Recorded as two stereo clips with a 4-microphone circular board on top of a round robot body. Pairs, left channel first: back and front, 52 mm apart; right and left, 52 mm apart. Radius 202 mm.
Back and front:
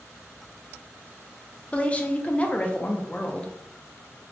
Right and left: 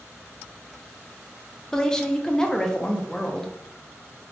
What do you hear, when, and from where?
1.7 s a woman speaking: 155° right, 0.8 m